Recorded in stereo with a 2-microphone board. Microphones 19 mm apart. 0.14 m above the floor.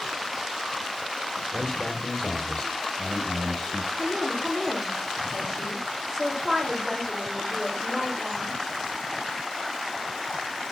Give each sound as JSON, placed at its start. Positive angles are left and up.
{"t": 1.5, "sound": "a man speaking", "side_deg": 45, "distance_m": 4.0}
{"t": 3.9, "sound": "a woman speaking", "side_deg": -10, "distance_m": 7.5}